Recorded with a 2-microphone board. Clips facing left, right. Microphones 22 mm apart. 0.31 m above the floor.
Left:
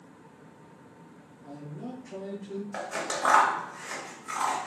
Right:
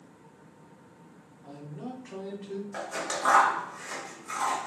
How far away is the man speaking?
About 1.0 m.